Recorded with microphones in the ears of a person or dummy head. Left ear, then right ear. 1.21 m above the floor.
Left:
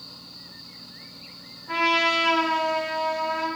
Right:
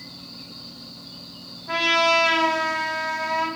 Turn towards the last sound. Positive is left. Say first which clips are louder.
# right 2 dB
turn(degrees=-25)  # may be behind; listen again after turning